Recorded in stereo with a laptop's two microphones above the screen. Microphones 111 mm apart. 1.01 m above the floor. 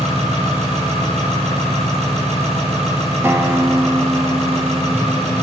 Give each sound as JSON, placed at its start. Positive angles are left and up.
{"t": 0.0, "sound": "an engine running", "side_deg": -75, "distance_m": 7.0}
{"t": 3.2, "sound": "a guitar", "side_deg": -20, "distance_m": 0.9}